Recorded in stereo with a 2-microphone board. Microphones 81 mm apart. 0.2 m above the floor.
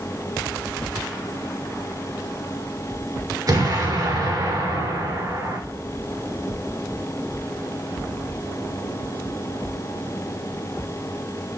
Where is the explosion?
45° right (ahead or behind), 2.5 m.